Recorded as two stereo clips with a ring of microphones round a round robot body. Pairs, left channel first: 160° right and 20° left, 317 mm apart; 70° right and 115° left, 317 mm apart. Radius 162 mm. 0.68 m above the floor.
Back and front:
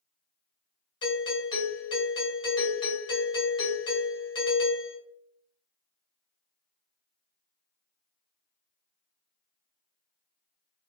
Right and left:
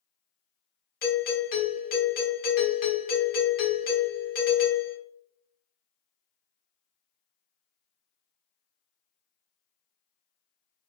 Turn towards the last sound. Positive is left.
turn(degrees=-95)